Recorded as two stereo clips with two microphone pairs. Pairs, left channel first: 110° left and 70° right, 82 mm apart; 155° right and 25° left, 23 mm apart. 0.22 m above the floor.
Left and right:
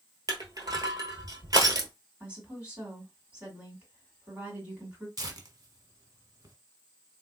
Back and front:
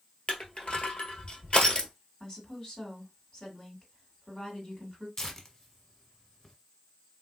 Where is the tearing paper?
95° right, 0.8 m.